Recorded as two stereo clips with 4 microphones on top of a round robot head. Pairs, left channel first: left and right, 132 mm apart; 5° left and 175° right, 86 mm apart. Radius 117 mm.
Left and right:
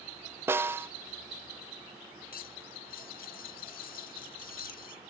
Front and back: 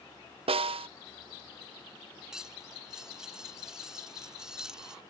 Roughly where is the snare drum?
Behind.